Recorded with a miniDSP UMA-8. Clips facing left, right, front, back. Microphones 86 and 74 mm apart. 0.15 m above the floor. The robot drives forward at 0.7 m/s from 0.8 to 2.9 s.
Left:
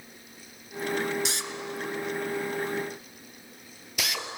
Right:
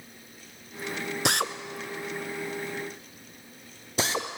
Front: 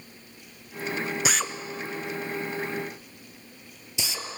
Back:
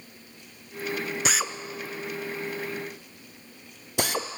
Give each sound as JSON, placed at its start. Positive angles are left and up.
{"t": 1.2, "sound": "a drill", "azimuth_deg": -90, "distance_m": 0.8}